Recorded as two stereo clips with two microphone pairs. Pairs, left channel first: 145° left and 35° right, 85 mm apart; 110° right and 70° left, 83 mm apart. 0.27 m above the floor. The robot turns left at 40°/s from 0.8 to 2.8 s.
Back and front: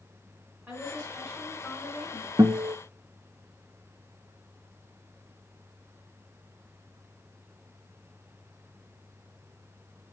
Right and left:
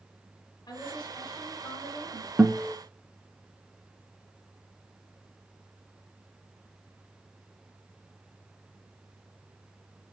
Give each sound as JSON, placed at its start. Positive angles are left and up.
{"t": 0.7, "sound": "a woman speaking", "azimuth_deg": -90, "distance_m": 2.0}
{"t": 2.4, "sound": "a guitar", "azimuth_deg": 0, "distance_m": 0.6}